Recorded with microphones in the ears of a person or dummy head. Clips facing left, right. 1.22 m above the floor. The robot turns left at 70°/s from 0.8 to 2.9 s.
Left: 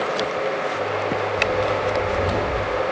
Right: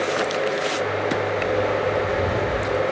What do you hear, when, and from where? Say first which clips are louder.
1.4 s footsteps: even; 15° left (ahead or behind), 1.3 m; by 2.8 s 10° right (ahead or behind), 1.2 m